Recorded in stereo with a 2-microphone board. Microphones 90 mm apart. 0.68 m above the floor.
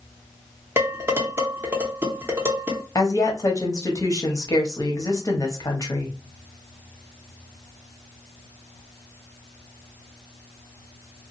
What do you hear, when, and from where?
0.8 s dishes clattering: 25° right (ahead or behind), 0.9 m
3.0 s a woman speaking: 40° left (ahead or behind), 0.9 m